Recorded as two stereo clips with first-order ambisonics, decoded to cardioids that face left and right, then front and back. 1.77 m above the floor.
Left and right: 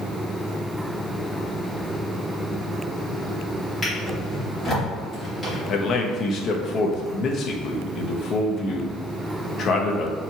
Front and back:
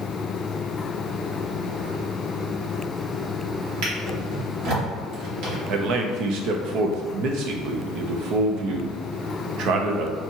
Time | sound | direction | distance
3.8 | a drawer | 175° left | 1.8 m
5.7 | a man speaking | 145° left | 0.6 m